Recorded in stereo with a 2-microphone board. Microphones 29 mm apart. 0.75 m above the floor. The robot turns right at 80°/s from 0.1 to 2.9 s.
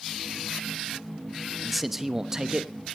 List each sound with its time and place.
1.6 s a man speaking: centre (ahead or behind), 1.0 m; by 2.7 s 25° right (ahead or behind), 1.0 m